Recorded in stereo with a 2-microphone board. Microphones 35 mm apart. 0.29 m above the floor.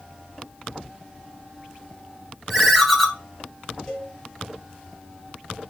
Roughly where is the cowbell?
Centre.